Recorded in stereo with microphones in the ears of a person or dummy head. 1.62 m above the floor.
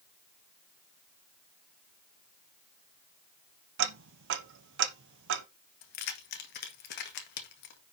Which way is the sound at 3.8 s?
60° right (ahead or behind).